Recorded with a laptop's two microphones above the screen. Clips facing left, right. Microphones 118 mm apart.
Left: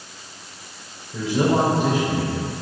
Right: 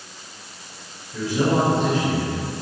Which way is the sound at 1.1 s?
20° left (ahead or behind).